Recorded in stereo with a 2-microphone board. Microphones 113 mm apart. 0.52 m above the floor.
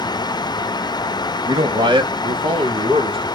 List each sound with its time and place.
1.4 s a man speaking: 40° right (ahead or behind), 1.9 m; by 3.4 s 50° right (ahead or behind), 4.5 m